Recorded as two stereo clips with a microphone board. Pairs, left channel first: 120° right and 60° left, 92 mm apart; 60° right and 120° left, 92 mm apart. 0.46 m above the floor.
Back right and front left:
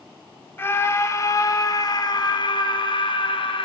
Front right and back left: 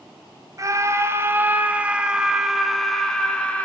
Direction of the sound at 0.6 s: 175° left.